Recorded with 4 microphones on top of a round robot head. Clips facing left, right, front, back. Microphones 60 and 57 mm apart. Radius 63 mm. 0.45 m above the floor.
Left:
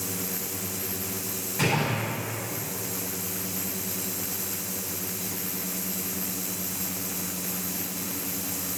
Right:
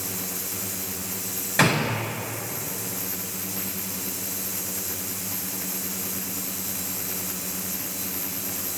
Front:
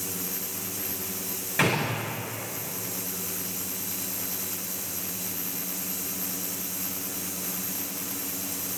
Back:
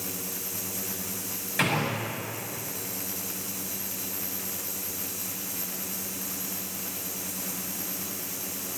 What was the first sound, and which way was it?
A gunshot, 85° right.